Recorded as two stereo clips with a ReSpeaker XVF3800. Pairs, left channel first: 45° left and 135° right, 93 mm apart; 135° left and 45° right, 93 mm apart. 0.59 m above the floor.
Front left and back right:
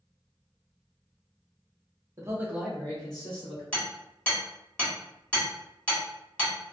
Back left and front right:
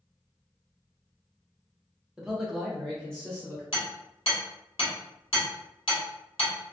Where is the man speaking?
125° right, 0.8 m; by 3.6 s 55° left, 1.1 m.